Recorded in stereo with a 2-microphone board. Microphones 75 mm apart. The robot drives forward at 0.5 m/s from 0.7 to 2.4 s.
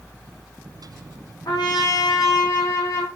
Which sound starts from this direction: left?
A trumpet, at 1.5 s.